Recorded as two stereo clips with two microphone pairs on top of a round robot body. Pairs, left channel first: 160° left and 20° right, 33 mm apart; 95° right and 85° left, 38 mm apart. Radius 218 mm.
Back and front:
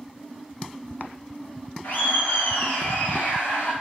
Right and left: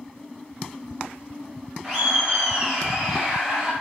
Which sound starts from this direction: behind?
Laughter, at 1.8 s.